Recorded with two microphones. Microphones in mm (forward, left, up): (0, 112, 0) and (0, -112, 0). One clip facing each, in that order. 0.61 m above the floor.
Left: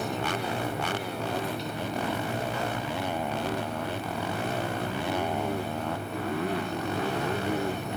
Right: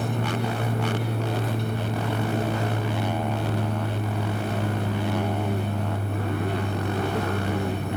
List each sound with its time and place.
0.0 s an aircraft: 50° right (ahead or behind)